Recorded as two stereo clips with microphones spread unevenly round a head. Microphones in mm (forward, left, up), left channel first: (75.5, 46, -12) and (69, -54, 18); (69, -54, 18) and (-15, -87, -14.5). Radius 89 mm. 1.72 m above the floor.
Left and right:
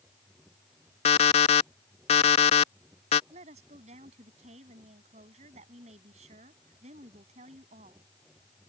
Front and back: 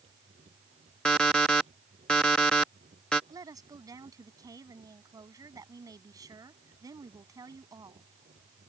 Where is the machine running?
170° right.